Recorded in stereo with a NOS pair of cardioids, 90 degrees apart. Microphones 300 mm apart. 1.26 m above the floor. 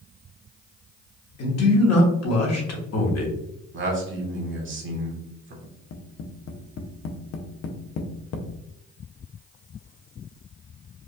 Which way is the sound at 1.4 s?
55° left.